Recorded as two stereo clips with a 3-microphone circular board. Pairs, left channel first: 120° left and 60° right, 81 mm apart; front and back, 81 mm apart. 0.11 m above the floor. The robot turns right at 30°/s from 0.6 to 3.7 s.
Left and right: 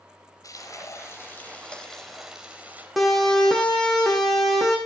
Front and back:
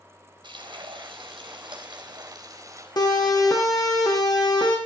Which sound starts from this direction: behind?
Frying, at 0.4 s.